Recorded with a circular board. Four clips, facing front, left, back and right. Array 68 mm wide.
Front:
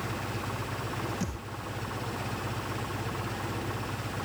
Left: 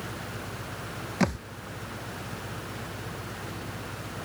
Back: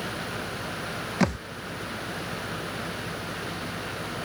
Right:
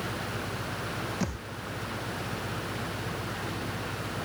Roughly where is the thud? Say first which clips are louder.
Left 6 dB, back 10 dB; behind left.